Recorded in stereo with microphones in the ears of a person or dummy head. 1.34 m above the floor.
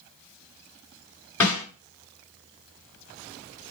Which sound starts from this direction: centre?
A snare drum, at 1.4 s.